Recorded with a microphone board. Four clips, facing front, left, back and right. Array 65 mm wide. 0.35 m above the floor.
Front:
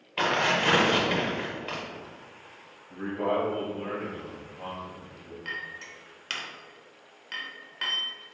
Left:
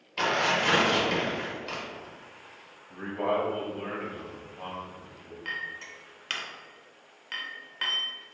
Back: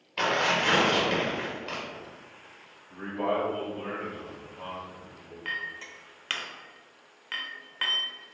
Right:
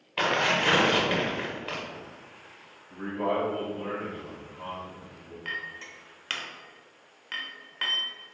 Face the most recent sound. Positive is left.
turn(degrees=-160)